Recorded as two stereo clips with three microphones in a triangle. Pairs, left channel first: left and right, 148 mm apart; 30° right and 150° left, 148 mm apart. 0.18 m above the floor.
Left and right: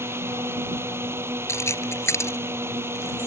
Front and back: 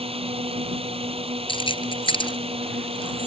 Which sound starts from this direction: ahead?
Keys jangling, at 1.5 s.